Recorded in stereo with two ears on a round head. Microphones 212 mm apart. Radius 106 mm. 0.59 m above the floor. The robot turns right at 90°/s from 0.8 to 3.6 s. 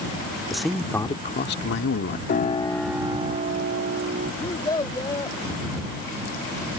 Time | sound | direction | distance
0.5 | a man speaking | straight ahead | ?
2.3 | a piano | 130° left | ?
4.4 | a child speaking | 15° left (ahead or behind) | ?